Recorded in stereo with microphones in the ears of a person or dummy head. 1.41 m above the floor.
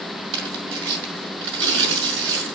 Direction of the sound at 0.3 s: 70° right (ahead or behind).